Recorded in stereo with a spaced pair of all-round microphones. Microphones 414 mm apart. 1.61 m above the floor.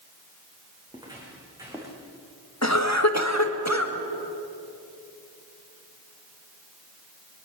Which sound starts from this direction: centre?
Footsteps, at 0.9 s.